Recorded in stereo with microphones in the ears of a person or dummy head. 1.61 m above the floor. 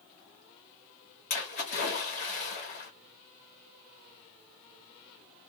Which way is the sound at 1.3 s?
50° left (ahead or behind).